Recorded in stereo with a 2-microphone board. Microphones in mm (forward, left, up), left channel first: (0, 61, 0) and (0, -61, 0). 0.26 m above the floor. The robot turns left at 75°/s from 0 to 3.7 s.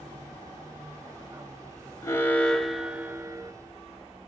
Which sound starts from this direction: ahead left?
An alarm, at 2.0 s.